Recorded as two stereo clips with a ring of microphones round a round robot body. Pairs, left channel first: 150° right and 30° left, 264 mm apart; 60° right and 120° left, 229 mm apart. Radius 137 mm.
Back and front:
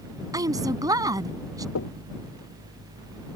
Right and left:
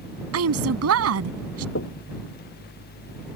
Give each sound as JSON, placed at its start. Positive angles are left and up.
{"t": 0.3, "sound": "a woman speaking", "azimuth_deg": 105}
{"t": 1.8, "sound": "knocking", "azimuth_deg": -110}